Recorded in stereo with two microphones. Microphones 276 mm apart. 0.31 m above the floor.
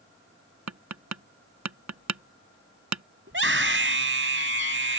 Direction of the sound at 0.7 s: 75° right (ahead or behind).